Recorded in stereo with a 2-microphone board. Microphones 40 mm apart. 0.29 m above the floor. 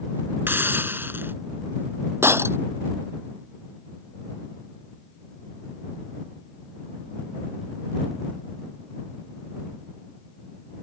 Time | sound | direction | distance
0.5 | a hiss | 60° right (ahead or behind) | ?
2.2 | breaking glass | 85° right | ?